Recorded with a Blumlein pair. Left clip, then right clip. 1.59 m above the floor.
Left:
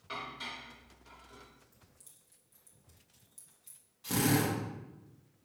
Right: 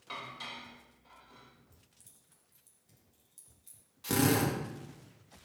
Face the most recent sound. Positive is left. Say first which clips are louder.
# right 1 dB
turn(degrees=-20)